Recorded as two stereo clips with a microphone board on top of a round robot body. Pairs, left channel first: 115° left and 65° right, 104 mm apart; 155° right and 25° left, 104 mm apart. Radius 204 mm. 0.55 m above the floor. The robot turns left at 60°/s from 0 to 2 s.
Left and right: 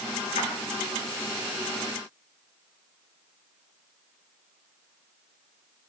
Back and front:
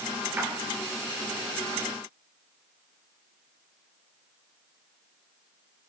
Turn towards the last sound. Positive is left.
turn(degrees=-5)